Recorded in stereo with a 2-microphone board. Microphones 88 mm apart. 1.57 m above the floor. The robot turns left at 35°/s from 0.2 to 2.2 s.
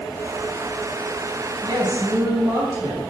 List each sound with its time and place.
1.6 s a woman speaking: 55° right (ahead or behind), 7.5 m; by 3.1 s 35° right (ahead or behind), 7.5 m